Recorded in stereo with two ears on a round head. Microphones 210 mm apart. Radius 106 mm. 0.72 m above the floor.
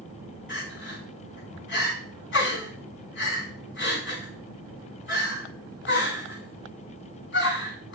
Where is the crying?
55° left (ahead or behind), 6.5 m.